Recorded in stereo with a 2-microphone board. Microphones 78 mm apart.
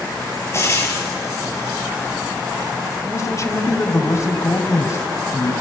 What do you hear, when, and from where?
0.5 s frying: 35° left (ahead or behind), 4 m
3.0 s a man speaking: 40° left (ahead or behind), 1.5 m